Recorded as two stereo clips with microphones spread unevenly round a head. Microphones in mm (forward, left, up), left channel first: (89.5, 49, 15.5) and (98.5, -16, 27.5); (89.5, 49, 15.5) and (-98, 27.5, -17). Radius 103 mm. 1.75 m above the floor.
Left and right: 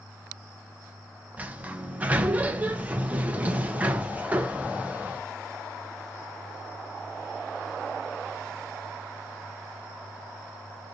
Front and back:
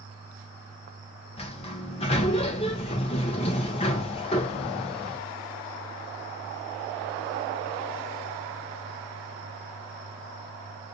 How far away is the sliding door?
About 0.7 m.